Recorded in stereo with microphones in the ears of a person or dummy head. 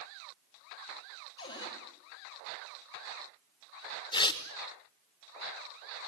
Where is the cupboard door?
25° left (ahead or behind), 4.5 m.